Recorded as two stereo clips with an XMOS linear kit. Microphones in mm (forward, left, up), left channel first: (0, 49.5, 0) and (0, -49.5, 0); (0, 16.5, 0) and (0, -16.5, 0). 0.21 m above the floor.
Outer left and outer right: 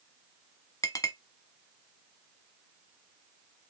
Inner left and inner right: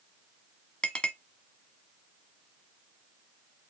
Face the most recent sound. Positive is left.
turn(degrees=35)  # may be behind; listen again after turning